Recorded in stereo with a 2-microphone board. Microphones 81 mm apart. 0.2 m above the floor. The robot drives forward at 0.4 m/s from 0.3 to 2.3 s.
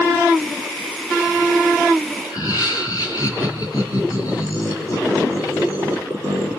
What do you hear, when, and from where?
2.2 s laughter: 50° left (ahead or behind), 3.5 m